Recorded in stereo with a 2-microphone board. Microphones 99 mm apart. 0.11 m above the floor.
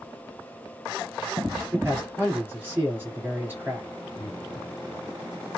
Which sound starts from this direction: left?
Breathing, at 4.2 s.